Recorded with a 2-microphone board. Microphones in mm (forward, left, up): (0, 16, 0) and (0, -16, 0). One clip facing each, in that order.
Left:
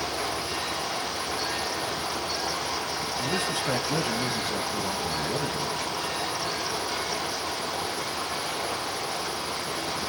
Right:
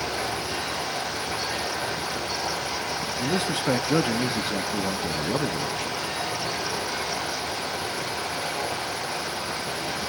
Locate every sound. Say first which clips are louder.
0.0 s running water: right 1 dB; 50° right (ahead or behind), 9.5 m
3.2 s a man speaking: right 3 dB; 40° right (ahead or behind), 1.1 m